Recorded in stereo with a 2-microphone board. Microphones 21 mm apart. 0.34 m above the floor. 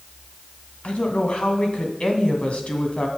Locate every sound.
0.8 s a woman speaking: 65° left (ahead or behind), 2 m